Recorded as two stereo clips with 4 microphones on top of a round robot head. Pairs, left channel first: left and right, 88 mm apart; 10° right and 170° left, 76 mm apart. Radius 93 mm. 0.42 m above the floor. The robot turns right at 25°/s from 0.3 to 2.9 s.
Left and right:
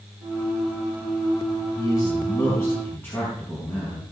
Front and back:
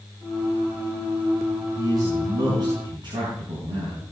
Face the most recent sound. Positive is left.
turn(degrees=155)